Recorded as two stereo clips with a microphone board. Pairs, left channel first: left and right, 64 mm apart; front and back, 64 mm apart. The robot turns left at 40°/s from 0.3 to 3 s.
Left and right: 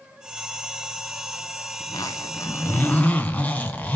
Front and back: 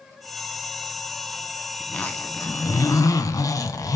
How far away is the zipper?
About 2 m.